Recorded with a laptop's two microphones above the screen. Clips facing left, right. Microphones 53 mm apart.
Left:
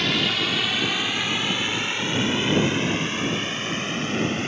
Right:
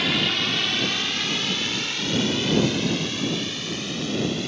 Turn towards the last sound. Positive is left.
turn(degrees=35)  # may be behind; listen again after turning